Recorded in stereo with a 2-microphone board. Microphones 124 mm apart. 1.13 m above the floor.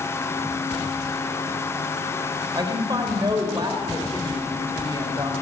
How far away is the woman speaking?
About 4 m.